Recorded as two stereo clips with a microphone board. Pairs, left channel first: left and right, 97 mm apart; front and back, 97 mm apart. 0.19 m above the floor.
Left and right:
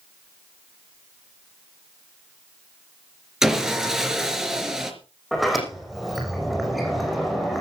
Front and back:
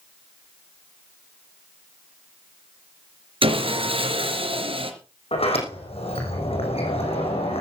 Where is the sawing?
175° right, 3.5 m.